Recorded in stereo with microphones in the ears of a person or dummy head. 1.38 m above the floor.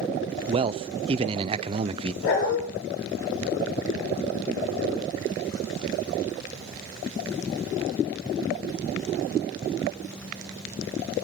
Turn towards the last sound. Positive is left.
turn(degrees=80)